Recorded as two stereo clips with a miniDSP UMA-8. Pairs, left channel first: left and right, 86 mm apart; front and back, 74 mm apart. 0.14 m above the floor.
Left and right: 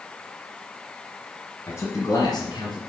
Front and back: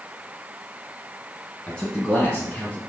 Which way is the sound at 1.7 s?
65° left.